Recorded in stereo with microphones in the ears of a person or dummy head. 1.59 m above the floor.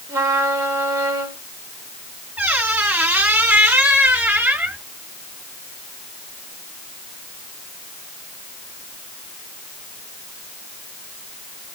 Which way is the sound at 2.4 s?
5° right (ahead or behind).